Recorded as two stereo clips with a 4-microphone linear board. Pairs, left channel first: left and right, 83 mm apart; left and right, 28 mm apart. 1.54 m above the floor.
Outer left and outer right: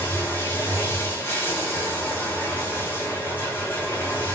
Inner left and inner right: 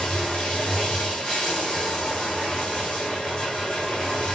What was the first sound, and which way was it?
Running water, 25° left (ahead or behind).